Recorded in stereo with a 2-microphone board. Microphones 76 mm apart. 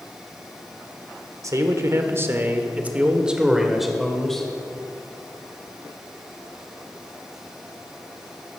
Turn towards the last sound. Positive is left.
turn(degrees=5)  # may be behind; listen again after turning